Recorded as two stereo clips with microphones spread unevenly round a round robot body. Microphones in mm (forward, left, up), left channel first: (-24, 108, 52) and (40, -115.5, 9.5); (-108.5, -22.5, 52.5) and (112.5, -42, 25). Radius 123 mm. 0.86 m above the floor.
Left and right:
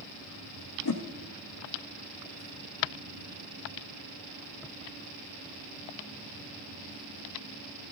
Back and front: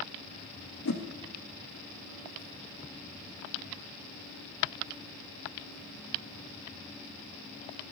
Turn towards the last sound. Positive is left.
turn(degrees=130)